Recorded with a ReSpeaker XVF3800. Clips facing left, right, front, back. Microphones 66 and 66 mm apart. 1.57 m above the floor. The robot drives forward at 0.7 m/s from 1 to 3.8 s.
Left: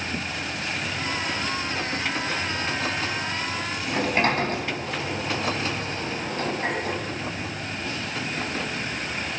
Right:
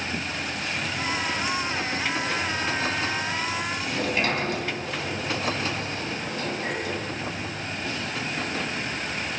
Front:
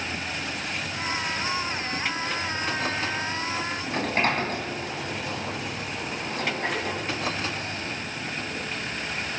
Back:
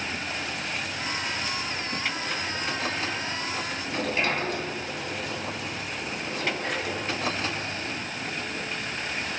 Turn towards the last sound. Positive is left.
turn(degrees=40)